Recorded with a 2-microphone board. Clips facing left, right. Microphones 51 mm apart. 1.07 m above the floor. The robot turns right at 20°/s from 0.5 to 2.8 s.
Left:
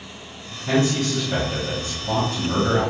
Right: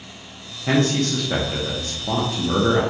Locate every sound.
0.7 s a man speaking: 80° right, 0.8 m; by 2.8 s 40° right, 0.8 m